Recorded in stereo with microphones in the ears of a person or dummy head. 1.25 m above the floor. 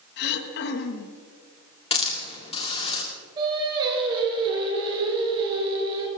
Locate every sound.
0.2 s throat clearing: 55° left (ahead or behind), 1.1 m
1.9 s a hiss: 35° left (ahead or behind), 2.5 m
3.4 s singing: 30° right (ahead or behind), 3.5 m